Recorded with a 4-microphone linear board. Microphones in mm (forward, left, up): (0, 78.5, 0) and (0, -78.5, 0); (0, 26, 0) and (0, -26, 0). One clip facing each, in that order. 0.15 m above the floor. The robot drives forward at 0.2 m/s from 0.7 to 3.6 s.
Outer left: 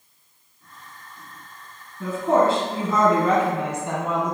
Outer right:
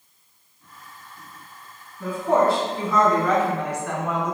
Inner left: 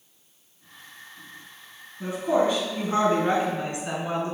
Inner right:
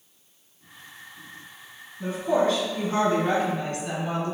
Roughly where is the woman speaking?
Centre.